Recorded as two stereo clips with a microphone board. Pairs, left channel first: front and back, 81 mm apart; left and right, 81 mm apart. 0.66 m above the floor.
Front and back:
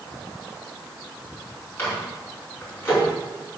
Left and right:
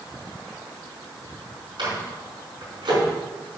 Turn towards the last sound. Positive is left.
turn(degrees=-60)